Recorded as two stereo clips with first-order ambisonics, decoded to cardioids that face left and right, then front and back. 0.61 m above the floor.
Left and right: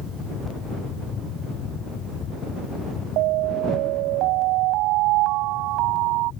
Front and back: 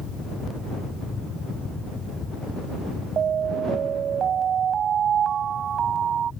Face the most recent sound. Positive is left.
turn(degrees=-120)